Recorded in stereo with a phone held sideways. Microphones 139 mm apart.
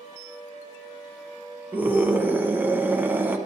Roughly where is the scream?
Centre.